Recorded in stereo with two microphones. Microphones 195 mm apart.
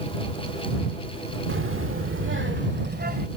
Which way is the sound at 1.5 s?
70° right (ahead or behind).